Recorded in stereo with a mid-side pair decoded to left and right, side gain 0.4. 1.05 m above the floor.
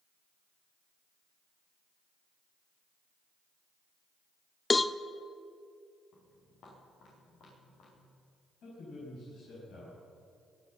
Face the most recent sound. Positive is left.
turn(degrees=65)